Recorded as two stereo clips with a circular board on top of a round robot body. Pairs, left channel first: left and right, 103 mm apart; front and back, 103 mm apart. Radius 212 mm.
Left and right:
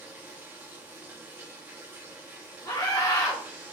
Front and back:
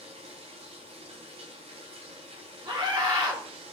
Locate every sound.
0.0 s running water: 165° right, 1.2 m
2.6 s a scream: 140° left, 4.5 m